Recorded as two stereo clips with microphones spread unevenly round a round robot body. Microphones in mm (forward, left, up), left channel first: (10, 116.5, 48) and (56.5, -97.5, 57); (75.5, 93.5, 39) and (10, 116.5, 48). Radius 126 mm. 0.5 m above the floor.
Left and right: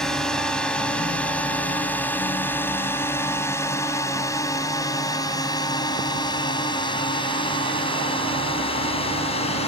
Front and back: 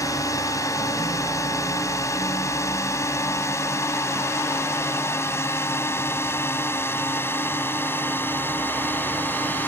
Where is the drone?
15° left; by 9.7 s 40° left.